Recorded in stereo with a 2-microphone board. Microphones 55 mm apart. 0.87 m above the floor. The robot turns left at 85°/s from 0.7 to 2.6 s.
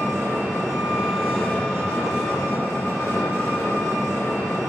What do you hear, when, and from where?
0.0 s an engine running: 135° right, 3 m; by 4.7 s 65° left, 3 m